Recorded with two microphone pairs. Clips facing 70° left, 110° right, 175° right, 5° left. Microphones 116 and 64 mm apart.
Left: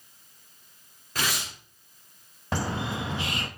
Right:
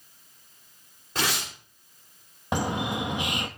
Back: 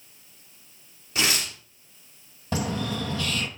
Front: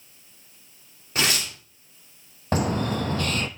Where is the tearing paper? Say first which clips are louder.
Right 2 dB, front 1 dB; 45° right, 5 m.